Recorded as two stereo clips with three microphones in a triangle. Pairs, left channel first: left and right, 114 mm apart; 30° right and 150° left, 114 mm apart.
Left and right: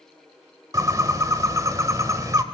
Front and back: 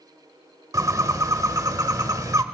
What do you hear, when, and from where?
0.7 s a bird: 150° right, 0.9 m